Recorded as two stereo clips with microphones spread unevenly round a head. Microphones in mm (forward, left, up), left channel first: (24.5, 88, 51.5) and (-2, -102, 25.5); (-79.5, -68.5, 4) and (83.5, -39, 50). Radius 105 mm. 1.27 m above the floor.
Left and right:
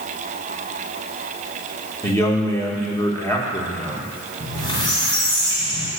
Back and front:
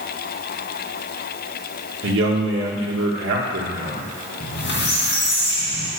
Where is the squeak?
145° left, 2.5 m.